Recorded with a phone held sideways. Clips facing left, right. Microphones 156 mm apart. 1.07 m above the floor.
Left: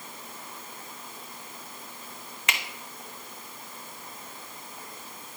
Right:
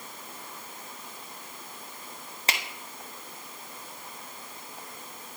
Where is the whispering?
No whispering in this recording.